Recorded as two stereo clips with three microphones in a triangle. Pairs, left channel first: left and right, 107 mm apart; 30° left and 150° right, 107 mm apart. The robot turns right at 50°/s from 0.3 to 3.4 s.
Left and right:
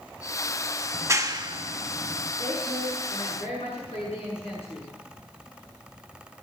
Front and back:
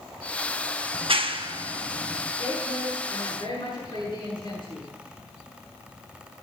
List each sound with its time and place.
0.9 s a clap: 155° right, 0.9 m; by 2.3 s 85° right, 0.9 m
2.4 s a woman speaking: 30° left, 7 m; by 4.9 s 80° left, 7 m